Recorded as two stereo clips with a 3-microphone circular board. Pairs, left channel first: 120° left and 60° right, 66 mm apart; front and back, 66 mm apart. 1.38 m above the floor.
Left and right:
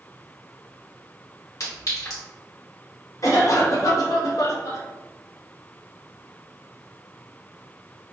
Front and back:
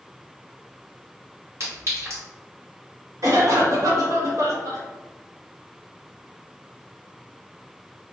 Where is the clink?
140° left, 1.4 m.